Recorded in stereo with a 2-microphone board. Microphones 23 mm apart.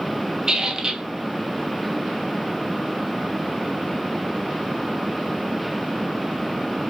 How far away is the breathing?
No breathing in this recording.